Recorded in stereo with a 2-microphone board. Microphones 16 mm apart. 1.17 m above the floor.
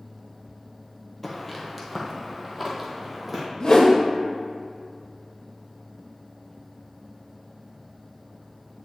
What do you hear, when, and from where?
1.2 s footsteps: 10° left (ahead or behind), 1.3 m; by 3.5 s 20° right (ahead or behind), 2 m
3.6 s a whoosh: 45° left (ahead or behind), 1.1 m